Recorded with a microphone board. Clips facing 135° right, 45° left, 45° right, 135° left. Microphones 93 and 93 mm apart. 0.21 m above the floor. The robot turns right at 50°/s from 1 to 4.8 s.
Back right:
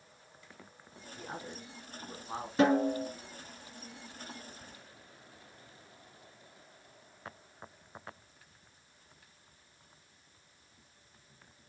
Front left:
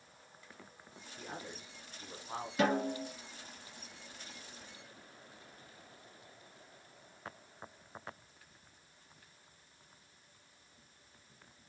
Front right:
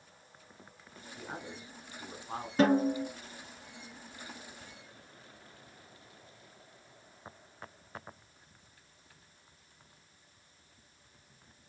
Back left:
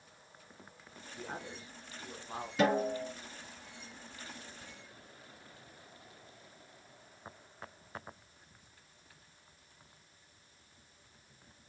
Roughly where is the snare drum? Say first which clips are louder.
Back right 6 dB, front right 4 dB; right.